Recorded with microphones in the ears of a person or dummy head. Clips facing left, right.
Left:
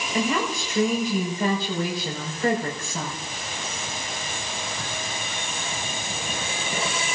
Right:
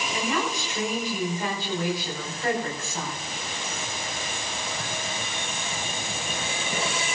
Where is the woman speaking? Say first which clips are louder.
Left 4 dB; 80° left, 6 m.